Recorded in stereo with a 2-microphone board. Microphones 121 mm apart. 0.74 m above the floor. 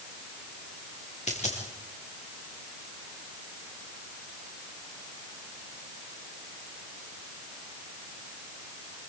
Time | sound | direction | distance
1.3 | a dropped coin | 70° left (ahead or behind) | 6 m